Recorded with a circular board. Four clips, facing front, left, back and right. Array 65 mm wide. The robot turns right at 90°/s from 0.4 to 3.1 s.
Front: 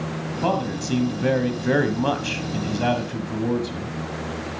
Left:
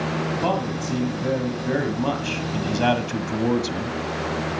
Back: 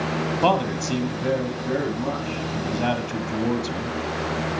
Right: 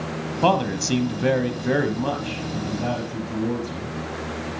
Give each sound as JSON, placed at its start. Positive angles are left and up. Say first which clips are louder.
{"t": 0.4, "sound": "a man speaking", "louder": "right 8 dB, back 2 dB", "azimuth_deg": -140, "distance_m": 1.5}